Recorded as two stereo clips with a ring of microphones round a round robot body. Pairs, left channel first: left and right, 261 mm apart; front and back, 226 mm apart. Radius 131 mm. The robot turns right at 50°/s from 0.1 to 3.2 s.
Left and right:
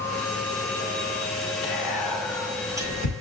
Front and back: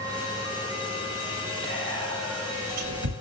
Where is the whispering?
135° left, 9 m; by 3.1 s 150° right, 9 m.